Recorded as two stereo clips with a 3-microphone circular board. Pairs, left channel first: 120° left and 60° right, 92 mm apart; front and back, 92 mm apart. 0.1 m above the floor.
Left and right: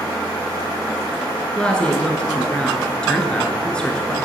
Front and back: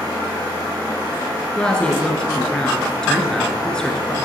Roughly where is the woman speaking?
Ahead left.